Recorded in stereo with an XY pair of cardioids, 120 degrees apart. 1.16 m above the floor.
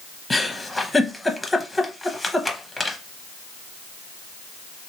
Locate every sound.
0.3 s a giggle: 5° left, 0.7 m